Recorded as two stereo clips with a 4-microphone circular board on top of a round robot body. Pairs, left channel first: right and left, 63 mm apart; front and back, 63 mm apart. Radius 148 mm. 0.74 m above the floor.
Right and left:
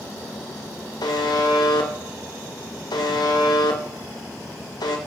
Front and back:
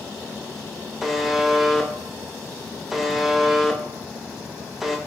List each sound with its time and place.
1.0 s a buzzer: 95° right, 1.2 m